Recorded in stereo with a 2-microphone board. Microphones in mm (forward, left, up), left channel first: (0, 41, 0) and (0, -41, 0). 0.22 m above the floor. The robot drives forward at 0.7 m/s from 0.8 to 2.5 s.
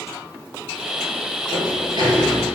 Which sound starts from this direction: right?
A sliding door, at 1.5 s.